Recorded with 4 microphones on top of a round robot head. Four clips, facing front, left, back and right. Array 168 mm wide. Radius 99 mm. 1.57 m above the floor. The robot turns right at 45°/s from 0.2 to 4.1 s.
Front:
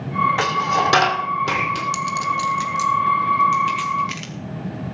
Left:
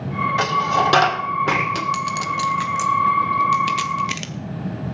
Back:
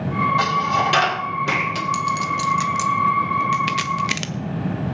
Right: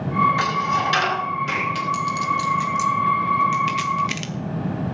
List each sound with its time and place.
0.4 s a dropped coin: 25° left, 2.5 m; by 1.8 s 95° left, 2.5 m
1.9 s a clink: 75° left, 0.6 m; by 4.3 s 175° left, 0.6 m